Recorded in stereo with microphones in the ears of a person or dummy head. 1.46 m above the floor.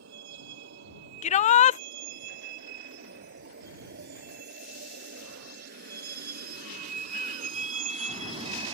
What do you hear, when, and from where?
0.0 s a vehicle: 65° right (ahead or behind); by 8.8 s 30° right (ahead or behind)
1.2 s a shout: 35° left (ahead or behind)